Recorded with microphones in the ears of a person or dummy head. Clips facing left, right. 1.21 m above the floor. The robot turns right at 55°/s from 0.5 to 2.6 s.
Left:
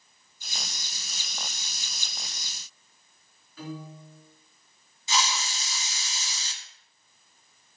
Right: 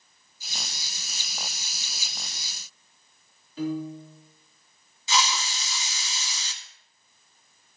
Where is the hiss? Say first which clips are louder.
Right 2 dB; 65° right (ahead or behind), 1.0 m.